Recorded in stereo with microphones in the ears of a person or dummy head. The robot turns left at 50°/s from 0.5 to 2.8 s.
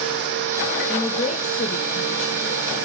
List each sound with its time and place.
0.9 s a woman speaking: 165° left, 1.4 m; by 2.9 s 70° left, 1.4 m